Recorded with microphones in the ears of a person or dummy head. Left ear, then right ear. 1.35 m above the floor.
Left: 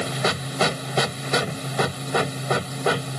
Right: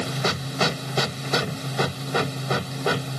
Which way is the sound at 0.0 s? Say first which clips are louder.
Left 2 dB; 15° left (ahead or behind).